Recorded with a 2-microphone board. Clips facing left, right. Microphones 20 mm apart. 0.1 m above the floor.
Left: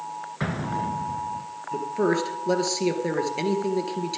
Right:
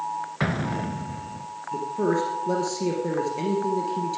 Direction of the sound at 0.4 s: 20° right (ahead or behind).